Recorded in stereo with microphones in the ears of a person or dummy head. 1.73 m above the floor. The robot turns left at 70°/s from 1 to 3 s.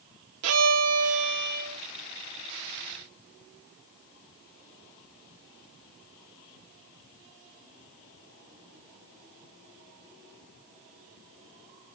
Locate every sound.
0.4 s a violin: 95° right, 0.7 m; by 1.8 s 150° right, 0.7 m